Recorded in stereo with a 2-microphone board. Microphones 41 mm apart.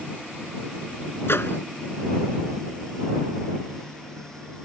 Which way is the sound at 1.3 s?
70° left (ahead or behind).